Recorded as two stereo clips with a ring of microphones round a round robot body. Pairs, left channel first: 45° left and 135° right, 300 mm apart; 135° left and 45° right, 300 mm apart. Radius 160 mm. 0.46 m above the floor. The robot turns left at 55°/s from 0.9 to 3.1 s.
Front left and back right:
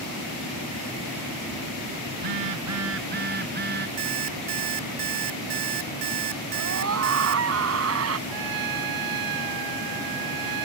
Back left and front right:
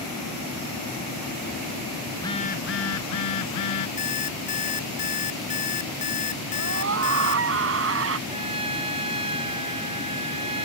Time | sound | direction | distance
2.1 | a phone buzzing | 140° right | ?
4.0 | an alarm clock | 155° right | ?
6.5 | a scream | 90° right | ?
8.3 | a trumpet | 120° right | ?